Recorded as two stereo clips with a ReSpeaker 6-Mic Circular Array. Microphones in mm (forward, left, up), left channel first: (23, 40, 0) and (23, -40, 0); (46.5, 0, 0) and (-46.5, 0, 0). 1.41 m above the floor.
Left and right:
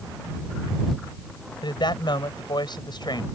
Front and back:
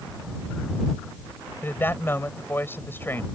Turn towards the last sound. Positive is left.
turn(degrees=65)